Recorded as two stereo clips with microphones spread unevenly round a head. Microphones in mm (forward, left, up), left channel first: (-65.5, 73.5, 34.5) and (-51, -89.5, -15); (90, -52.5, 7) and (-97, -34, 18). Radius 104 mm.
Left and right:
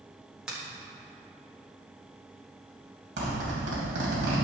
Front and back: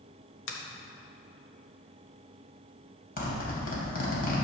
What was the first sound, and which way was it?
A finger snap, 5° right.